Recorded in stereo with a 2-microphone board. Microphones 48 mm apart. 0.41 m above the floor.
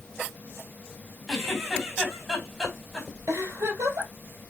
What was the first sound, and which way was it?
A giggle, 5° right (ahead or behind).